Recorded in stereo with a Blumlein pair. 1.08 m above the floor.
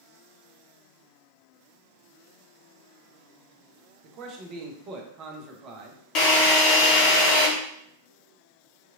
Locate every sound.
4.0 s a man speaking: 30° right, 0.7 m
6.2 s a drill: 35° left, 0.8 m